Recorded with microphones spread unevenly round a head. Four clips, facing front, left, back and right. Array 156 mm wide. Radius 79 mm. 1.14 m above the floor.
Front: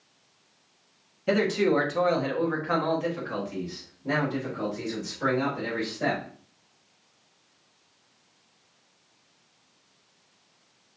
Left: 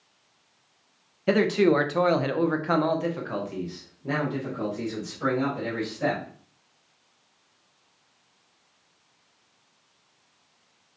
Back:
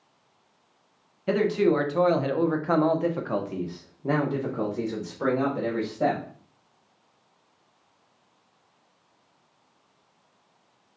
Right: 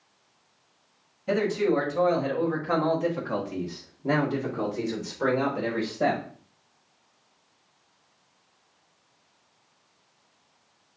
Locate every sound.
1.3 s a man speaking: 75° left, 1.1 m; by 6.2 s 135° right, 2.5 m